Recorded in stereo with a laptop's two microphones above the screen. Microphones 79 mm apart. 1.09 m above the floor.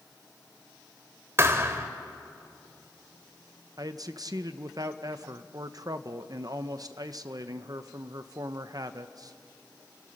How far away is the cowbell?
No cowbell in this recording.